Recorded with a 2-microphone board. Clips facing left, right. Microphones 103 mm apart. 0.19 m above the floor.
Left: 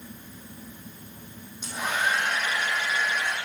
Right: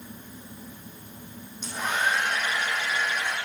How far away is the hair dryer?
About 5 m.